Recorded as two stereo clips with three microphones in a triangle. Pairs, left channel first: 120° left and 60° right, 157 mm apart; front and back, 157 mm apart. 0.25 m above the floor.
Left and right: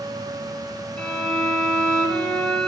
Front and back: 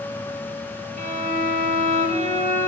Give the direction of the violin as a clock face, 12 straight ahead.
5 o'clock.